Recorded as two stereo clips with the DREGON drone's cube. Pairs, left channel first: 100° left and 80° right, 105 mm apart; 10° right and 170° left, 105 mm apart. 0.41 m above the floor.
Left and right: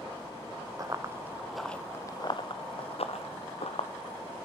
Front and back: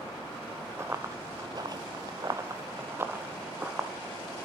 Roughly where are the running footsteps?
Behind right.